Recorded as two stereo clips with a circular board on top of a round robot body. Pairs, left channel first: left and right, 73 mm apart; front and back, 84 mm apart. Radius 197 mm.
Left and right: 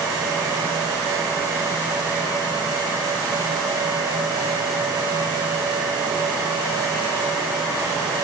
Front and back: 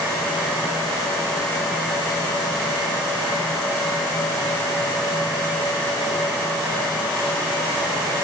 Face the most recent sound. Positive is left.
No sound to turn to.